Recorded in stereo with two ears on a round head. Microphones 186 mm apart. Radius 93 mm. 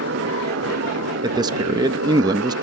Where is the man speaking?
20° right (ahead or behind).